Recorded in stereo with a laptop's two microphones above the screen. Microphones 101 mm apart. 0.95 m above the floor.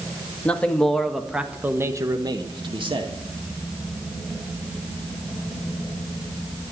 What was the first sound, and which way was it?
A man speaking, 15° left (ahead or behind).